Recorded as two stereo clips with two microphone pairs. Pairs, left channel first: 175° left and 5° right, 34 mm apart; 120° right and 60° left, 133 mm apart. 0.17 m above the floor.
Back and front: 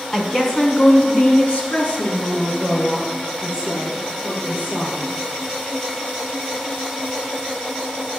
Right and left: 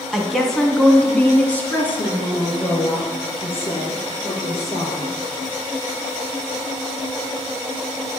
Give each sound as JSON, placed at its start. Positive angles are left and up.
{"t": 0.1, "sound": "a woman speaking", "azimuth_deg": 150, "distance_m": 1.5}